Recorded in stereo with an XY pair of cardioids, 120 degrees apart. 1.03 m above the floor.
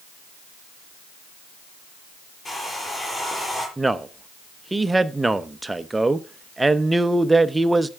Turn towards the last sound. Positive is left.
turn(degrees=-10)